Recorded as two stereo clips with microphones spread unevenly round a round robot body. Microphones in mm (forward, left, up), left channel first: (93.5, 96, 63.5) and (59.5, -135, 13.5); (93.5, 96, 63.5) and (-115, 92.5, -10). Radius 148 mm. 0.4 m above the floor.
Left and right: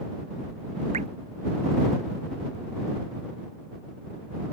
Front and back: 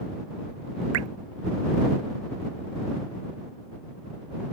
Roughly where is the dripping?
Behind.